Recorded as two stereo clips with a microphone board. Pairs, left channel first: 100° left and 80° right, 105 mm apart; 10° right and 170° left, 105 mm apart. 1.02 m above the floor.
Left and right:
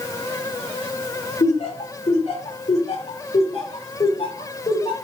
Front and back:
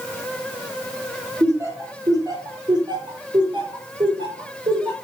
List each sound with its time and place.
1.4 s laughter: 105° left, 3 m; by 5.0 s 135° left, 5.5 m